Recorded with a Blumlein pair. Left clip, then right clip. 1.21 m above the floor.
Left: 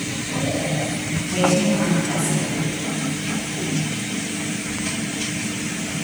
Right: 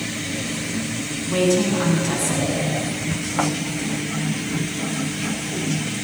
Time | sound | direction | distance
1.3 | a woman speaking | 5° right | 9 m